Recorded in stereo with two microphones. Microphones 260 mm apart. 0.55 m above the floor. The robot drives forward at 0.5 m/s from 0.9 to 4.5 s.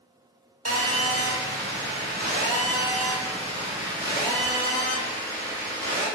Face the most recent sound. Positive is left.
turn(degrees=-20)  # may be behind; listen again after turning